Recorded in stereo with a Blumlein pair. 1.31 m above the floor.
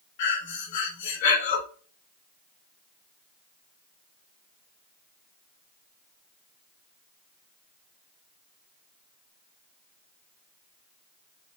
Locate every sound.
0.2 s breathing: 50° left, 1.0 m